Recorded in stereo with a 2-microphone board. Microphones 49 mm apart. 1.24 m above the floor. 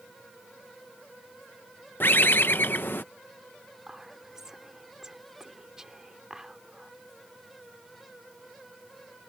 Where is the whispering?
10° right (ahead or behind).